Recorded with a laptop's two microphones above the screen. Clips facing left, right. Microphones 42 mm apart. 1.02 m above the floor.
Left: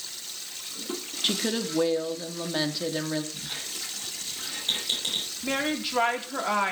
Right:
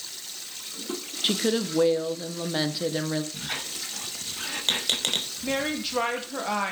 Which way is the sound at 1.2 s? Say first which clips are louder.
Right 3 dB; 5° right (ahead or behind).